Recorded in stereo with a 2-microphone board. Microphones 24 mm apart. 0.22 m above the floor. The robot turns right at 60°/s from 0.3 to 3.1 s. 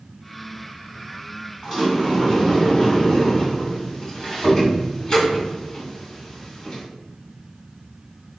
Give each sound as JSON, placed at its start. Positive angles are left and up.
{"t": 1.6, "sound": "a sliding door", "side_deg": 10, "distance_m": 1.6}